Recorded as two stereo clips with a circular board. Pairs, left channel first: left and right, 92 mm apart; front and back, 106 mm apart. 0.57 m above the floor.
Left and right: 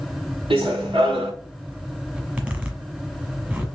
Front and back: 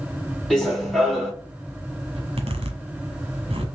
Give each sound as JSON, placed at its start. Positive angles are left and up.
{"t": 0.5, "sound": "running footsteps", "azimuth_deg": -85, "distance_m": 2.5}
{"t": 2.1, "sound": "a zipper", "azimuth_deg": -160, "distance_m": 1.3}